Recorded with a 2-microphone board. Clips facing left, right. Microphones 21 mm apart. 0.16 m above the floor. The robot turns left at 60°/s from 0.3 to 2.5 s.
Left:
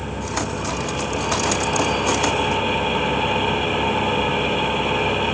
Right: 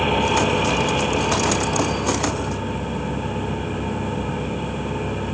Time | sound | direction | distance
0.0 | an engine running | 115° right | 1.9 m